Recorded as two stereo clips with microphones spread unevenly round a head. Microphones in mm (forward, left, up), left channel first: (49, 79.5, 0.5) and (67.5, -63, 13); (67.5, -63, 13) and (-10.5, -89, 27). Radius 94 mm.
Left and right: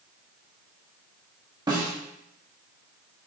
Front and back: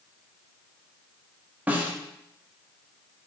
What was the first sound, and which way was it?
A snare drum, 120° right.